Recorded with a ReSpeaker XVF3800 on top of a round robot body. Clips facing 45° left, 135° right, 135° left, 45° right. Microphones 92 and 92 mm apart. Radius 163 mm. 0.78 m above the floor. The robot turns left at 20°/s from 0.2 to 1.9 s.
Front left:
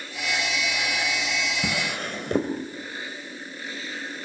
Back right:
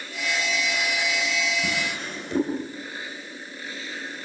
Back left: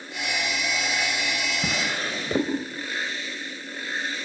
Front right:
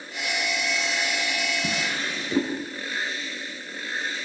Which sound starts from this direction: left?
A drawer, at 1.6 s.